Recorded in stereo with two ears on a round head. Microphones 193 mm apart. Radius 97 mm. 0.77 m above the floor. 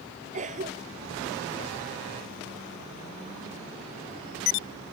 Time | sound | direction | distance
0.3 | a cough | 35° right (ahead or behind) | ?